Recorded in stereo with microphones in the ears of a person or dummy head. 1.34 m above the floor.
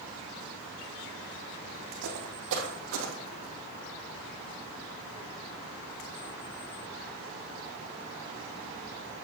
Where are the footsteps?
65° right (ahead or behind), 3.5 m; by 3.5 s 55° right (ahead or behind), 3 m.